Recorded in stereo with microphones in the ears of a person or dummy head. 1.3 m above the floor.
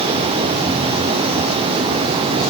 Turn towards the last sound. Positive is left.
No sound to turn to.